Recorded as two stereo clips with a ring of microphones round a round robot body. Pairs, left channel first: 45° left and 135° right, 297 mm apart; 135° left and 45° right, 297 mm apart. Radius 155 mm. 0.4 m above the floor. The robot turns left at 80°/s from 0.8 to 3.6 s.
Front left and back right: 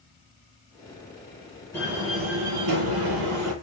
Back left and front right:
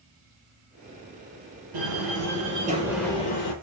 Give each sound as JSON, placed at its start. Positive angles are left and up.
{"t": 1.7, "sound": "a door slam", "azimuth_deg": -35, "distance_m": 8.5}